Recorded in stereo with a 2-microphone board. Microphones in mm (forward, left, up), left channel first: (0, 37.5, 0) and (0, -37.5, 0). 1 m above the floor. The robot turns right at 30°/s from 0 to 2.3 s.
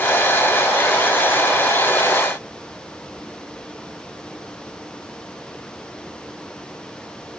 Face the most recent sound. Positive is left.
No sound to turn to.